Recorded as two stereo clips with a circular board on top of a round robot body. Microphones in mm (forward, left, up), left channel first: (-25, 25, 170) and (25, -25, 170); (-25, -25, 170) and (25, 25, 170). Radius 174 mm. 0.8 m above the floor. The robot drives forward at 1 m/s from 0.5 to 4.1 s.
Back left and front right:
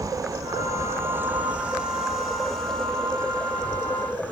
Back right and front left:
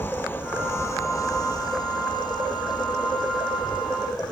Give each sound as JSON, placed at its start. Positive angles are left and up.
{"t": 0.0, "sound": "an insect", "azimuth_deg": -75}